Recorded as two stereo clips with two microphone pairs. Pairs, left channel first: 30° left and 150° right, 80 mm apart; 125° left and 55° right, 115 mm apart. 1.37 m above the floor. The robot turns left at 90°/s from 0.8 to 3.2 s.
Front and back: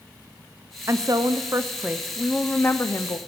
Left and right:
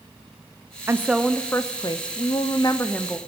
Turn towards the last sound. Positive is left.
turn(degrees=35)